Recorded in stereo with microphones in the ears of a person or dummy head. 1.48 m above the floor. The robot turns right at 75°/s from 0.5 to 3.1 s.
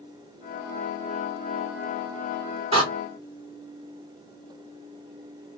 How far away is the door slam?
About 2 m.